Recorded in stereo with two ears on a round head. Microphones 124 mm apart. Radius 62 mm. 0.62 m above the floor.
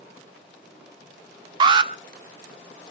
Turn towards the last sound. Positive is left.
turn(degrees=-30)  # may be behind; listen again after turning